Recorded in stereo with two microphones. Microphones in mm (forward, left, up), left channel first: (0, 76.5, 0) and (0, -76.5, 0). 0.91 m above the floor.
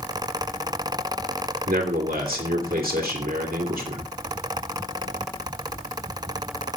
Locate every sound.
1.7 s a man speaking: 80° right, 2.5 m